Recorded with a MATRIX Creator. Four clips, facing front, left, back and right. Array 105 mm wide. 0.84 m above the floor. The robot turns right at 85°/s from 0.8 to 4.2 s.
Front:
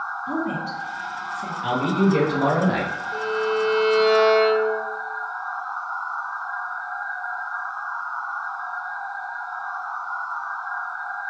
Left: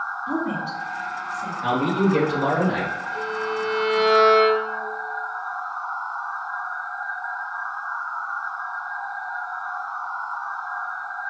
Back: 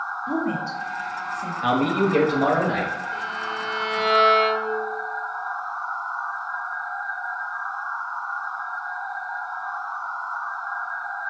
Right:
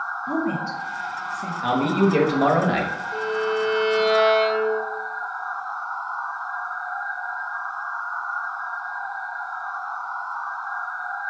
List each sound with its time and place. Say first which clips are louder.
0.3 s a woman speaking: right 2 dB, back 1 dB; 140° right, 0.9 m; by 1.5 s 75° right, 0.9 m
1.6 s a man speaking: right 1 dB, even; 165° right, 1.0 m; by 2.9 s 55° right, 1.0 m
3.1 s a violin: right 5 dB, front 6 dB; 25° right, 1.1 m; by 4.8 s 65° left, 1.1 m